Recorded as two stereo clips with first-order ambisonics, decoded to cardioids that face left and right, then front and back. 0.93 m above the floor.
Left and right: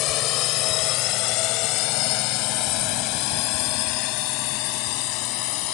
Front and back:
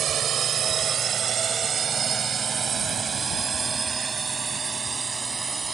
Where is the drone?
125° left; by 5.7 s 105° left.